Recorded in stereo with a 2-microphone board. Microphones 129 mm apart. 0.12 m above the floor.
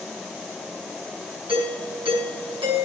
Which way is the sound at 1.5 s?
45° right (ahead or behind).